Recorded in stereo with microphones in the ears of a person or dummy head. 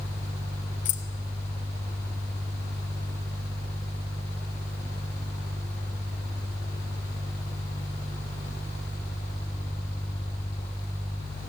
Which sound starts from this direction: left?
Keys jangling, at 0.8 s.